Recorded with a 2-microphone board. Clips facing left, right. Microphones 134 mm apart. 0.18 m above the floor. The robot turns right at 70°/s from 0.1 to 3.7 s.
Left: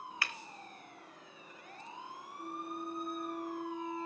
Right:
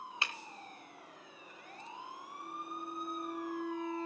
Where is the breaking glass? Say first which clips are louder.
Right 1 dB; 25° right (ahead or behind), 1.9 m; by 0.3 s 15° right (ahead or behind), 1.9 m.